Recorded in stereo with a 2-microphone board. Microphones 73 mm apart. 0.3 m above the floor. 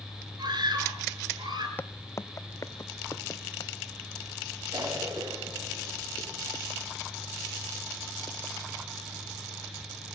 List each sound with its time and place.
0.4 s a scream: 75° right (ahead or behind), 6 m
1.8 s footsteps: 30° left (ahead or behind), 0.5 m; by 3.7 s 50° left (ahead or behind), 1.7 m
4.7 s a cough: 75° right (ahead or behind), 8 m